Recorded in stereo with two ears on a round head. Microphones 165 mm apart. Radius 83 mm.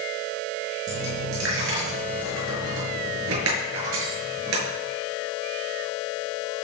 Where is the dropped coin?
80° right, 7 m.